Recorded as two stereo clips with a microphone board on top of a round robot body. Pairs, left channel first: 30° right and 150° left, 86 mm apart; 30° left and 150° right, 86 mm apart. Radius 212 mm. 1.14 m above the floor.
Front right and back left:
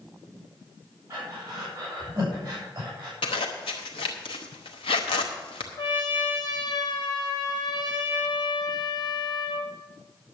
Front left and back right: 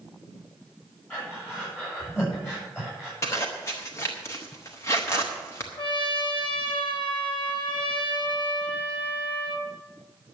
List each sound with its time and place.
1.1 s breathing: 95° left, 7 m
3.2 s a zipper: 30° right, 0.7 m
5.8 s a trumpet: 5° left, 1.9 m